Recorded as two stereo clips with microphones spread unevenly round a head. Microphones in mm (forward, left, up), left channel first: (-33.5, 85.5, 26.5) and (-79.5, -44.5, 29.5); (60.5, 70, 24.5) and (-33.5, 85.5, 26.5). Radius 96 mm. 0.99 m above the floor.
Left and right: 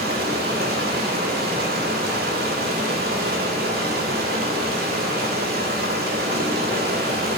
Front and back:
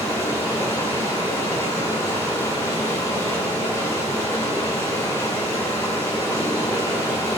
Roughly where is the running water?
Right.